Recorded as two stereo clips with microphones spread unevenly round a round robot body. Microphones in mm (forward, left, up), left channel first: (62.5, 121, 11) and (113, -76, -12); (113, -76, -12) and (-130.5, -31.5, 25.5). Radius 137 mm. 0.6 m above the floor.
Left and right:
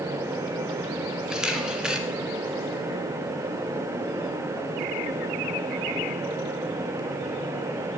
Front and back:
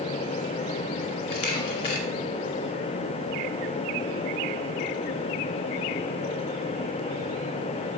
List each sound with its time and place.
1.3 s a camera shutter: 10° left, 2.5 m